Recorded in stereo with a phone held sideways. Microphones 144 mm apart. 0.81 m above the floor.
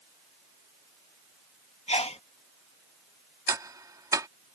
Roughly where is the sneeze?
Left.